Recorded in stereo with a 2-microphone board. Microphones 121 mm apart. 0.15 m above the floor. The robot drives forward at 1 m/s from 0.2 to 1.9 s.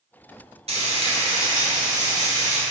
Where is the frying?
65° right (ahead or behind), 1.0 m; by 2.6 s 35° right (ahead or behind), 1.6 m.